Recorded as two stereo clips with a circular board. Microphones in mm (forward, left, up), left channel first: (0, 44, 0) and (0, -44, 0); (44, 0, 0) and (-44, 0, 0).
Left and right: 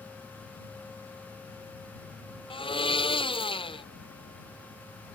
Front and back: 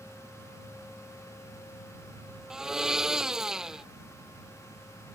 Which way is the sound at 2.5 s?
95° left.